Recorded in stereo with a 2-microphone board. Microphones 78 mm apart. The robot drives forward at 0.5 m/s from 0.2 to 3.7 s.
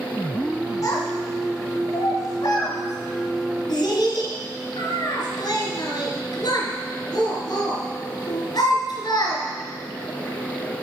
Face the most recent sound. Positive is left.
turn(degrees=70)  # may be behind; listen again after turning